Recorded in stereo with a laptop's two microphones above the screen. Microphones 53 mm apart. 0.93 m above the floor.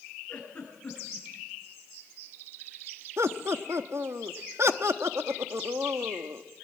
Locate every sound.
0.3 s a giggle: 25° left (ahead or behind), 9.5 m
3.2 s laughter: 60° right (ahead or behind), 1.4 m